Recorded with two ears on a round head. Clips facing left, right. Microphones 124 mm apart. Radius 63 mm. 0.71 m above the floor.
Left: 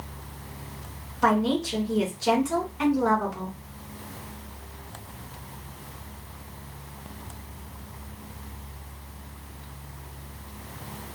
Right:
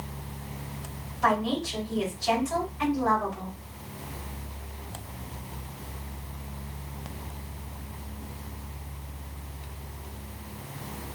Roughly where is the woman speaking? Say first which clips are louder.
Left 3 dB; left.